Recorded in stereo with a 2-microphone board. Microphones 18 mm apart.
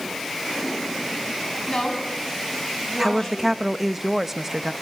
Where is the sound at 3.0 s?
15° right (ahead or behind), 0.5 m.